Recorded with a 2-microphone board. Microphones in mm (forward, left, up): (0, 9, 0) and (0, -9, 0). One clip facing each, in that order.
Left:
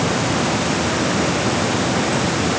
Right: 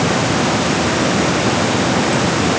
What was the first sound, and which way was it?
Only background noise.